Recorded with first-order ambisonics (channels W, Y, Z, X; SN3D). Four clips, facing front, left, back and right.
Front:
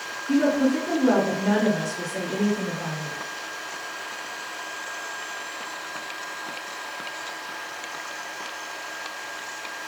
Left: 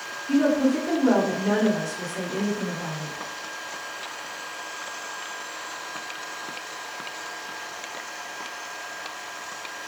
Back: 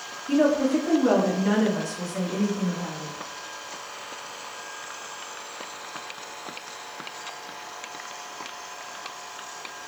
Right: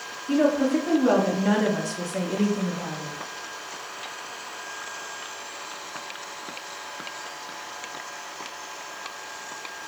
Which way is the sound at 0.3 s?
135° right.